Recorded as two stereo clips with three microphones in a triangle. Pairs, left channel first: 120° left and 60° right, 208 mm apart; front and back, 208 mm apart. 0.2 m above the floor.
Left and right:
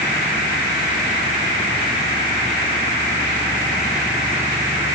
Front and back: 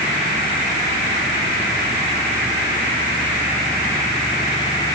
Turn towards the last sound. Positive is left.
No sound to turn to.